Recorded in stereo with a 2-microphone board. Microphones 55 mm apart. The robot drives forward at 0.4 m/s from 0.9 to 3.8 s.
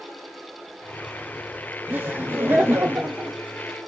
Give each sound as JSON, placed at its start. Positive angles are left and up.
{"t": 1.9, "sound": "laughter", "side_deg": -30, "distance_m": 0.9}